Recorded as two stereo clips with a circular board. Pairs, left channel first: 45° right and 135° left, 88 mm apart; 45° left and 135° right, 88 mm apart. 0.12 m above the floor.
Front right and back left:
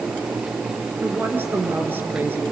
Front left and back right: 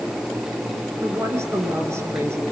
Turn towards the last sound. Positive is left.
turn(degrees=-170)